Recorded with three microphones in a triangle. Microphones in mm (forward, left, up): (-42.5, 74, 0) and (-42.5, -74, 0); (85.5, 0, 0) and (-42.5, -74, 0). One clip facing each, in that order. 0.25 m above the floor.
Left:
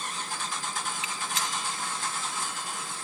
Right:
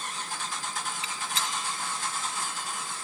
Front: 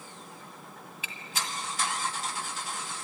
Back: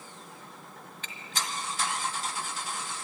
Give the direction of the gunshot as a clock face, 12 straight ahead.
2 o'clock.